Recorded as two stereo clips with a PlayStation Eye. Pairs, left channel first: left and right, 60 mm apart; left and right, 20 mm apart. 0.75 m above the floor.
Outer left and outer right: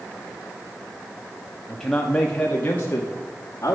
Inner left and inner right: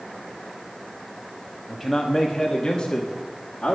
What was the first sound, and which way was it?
A man speaking, 5° left (ahead or behind).